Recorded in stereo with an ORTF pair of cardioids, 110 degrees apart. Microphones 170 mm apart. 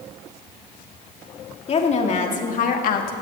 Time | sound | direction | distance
1.7 | a woman speaking | 40° left | 2.5 m